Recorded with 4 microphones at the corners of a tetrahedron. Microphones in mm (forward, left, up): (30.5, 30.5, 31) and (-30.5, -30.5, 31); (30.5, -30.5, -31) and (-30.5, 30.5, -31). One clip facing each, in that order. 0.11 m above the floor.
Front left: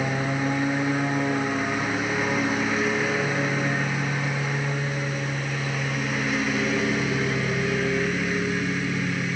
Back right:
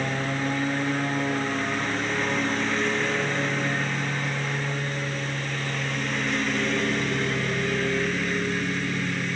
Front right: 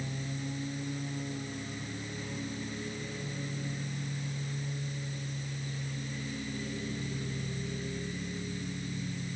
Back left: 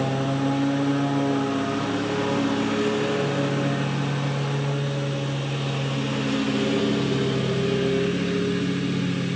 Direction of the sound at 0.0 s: 130° left.